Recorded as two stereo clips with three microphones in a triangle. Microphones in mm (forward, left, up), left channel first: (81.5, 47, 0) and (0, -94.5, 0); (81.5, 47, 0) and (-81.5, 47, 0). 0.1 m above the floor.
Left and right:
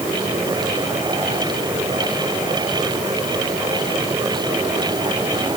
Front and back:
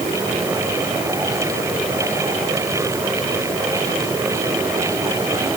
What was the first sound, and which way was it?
Only background noise.